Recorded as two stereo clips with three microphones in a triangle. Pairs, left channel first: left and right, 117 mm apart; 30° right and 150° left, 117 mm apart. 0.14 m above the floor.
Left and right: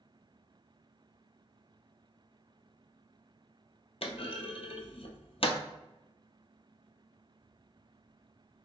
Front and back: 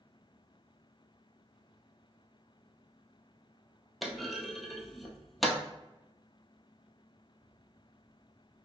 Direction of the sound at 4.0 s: 60° left.